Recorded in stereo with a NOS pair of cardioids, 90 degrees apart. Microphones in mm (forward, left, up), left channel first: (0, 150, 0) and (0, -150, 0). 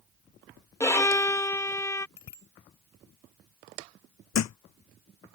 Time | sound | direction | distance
0.8 | a violin | 10° left | ?
2.2 | a bicycle bell | 65° left | ?
4.3 | a thud | 65° left | ?